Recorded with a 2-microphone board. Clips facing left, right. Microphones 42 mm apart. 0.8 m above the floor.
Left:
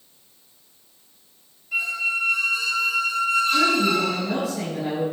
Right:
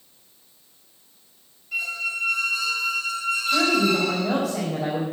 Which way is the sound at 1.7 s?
Centre (ahead or behind).